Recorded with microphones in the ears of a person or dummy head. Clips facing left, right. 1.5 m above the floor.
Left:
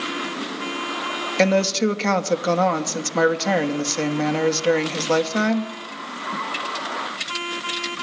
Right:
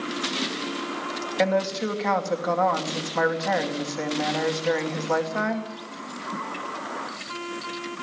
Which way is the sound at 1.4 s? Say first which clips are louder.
Left 5 dB; 50° left (ahead or behind).